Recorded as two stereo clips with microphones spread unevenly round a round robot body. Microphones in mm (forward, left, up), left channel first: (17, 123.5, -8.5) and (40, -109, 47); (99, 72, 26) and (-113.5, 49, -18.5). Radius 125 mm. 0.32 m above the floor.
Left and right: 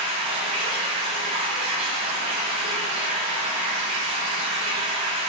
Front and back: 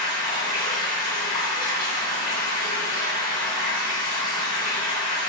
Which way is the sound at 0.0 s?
20° right.